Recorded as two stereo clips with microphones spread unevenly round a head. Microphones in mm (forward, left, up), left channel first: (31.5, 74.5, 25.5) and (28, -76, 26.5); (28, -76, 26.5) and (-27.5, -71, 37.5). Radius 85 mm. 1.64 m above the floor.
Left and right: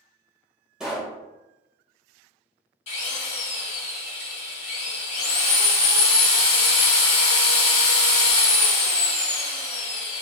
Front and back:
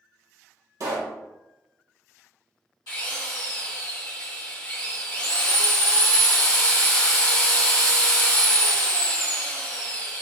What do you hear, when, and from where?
0.8 s a pop: 175° right, 1.4 m
2.9 s a drill: 45° left, 1.4 m